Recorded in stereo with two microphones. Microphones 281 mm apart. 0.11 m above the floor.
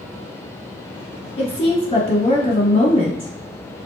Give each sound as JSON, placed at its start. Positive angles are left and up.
{"t": 1.4, "sound": "a woman speaking", "side_deg": 25, "distance_m": 1.1}